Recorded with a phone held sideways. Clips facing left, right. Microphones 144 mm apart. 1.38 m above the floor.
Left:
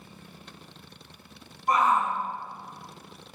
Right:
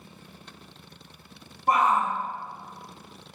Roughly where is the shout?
Right.